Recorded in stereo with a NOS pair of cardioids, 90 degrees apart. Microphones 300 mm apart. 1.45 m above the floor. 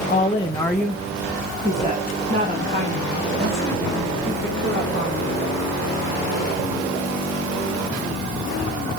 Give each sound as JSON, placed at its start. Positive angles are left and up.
{"t": 0.1, "sound": "a woman speaking", "azimuth_deg": 30, "distance_m": 1.2}